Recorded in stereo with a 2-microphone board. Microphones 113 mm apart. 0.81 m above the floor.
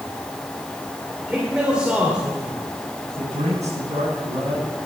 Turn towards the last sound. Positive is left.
turn(degrees=-80)